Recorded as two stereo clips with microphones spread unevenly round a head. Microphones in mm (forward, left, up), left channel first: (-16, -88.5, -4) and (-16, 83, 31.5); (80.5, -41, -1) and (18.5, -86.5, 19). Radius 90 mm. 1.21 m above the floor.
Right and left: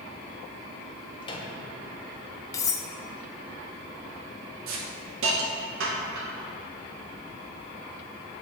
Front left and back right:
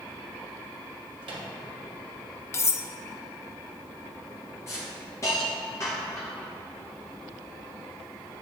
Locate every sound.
1.2 s a microwave: 155° right, 1.2 m
2.5 s cutlery clinking: 10° right, 0.6 m
4.7 s a hiss: 95° left, 1.3 m